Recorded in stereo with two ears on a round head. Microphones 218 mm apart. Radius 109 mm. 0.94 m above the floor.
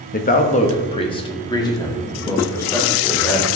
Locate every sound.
0.1 s a man speaking: 40° left (ahead or behind), 0.9 m; by 3.5 s 10° left (ahead or behind), 2.5 m